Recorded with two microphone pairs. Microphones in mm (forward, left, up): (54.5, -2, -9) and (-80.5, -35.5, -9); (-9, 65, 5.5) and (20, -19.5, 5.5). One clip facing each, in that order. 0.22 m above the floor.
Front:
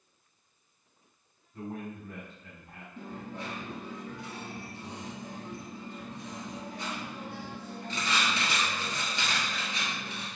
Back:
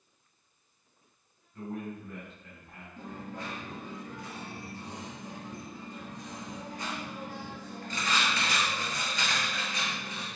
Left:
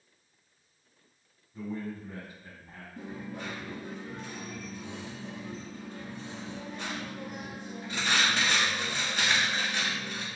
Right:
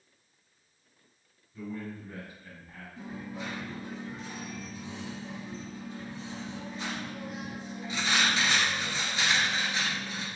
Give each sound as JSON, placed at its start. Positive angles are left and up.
{"t": 1.5, "sound": "a man speaking", "azimuth_deg": 65, "distance_m": 1.4}
{"t": 3.0, "sound": "a dropped coin", "azimuth_deg": 80, "distance_m": 1.7}